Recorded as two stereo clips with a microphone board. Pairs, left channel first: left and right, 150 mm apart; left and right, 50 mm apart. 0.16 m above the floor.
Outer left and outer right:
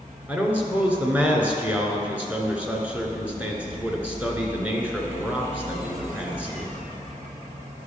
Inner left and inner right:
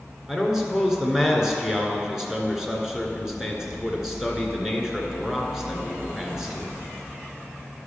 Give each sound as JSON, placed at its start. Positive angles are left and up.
{"t": 0.3, "sound": "a man speaking", "side_deg": -10, "distance_m": 1.7}